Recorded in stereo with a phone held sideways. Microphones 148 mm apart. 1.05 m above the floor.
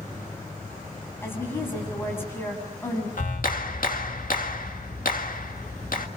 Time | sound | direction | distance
1.2 | a woman speaking | 15° left (ahead or behind) | 7 m
3.2 | a clap | 70° left (ahead or behind) | 1.7 m